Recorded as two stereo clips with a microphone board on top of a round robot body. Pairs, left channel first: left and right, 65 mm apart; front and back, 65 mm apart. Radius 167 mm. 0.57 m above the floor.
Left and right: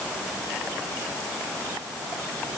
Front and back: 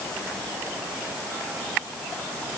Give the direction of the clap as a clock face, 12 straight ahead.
I don't hear a clap.